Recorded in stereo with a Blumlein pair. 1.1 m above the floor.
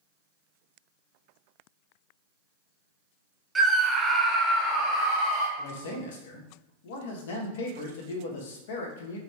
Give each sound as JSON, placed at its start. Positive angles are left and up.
{"t": 3.5, "sound": "a scream", "azimuth_deg": -15, "distance_m": 0.8}
{"t": 5.6, "sound": "a man speaking", "azimuth_deg": 55, "distance_m": 0.9}